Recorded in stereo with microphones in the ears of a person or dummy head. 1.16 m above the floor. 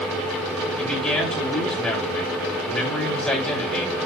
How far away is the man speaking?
About 4.5 m.